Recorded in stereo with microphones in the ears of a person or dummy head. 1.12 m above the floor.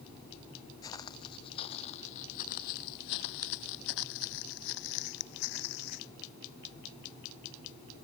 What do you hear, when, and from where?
0.8 s footsteps: 20° left (ahead or behind); by 6.1 s 55° left (ahead or behind)